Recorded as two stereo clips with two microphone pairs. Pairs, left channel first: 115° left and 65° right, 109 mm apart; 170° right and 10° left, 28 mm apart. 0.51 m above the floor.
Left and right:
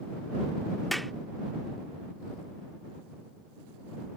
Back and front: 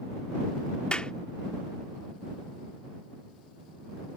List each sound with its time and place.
0.9 s a clap: 155° right